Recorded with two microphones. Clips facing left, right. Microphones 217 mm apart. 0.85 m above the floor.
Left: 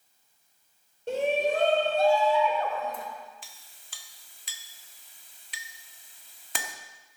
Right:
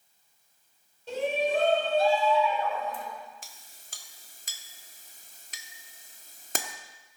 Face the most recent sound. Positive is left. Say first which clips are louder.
# right 2 dB
turn(degrees=-45)  # may be behind; listen again after turning